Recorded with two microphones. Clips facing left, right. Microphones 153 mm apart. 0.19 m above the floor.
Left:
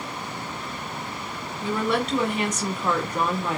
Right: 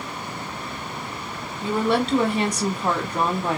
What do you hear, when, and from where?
1.6 s a woman speaking: 30° right (ahead or behind), 1.5 m